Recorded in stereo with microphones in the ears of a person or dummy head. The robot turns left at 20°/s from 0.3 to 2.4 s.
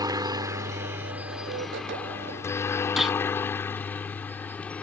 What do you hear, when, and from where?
0.0 s a helicopter: 25° right (ahead or behind); by 4.8 s 5° left (ahead or behind)
3.0 s a gunshot: centre (ahead or behind)